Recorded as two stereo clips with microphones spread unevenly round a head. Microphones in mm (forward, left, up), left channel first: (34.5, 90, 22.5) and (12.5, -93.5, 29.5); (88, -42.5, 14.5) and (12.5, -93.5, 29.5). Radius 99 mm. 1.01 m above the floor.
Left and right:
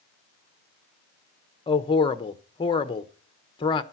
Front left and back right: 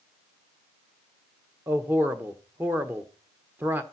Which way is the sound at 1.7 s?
140° left.